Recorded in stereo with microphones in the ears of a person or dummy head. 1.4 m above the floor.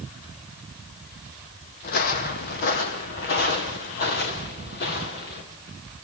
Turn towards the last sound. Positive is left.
turn(degrees=55)  # may be behind; listen again after turning